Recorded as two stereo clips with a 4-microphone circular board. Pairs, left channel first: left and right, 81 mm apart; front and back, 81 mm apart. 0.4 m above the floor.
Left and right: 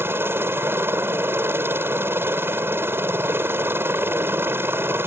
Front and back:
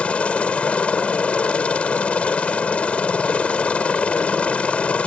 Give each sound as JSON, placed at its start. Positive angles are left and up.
{"t": 0.0, "sound": "a helicopter", "azimuth_deg": -60}